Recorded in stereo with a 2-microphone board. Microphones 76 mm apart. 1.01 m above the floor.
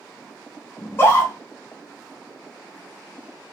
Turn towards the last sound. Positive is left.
turn(degrees=30)  # may be behind; listen again after turning